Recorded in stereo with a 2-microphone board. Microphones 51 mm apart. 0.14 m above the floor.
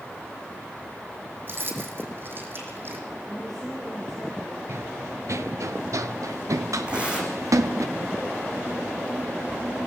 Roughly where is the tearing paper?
Right.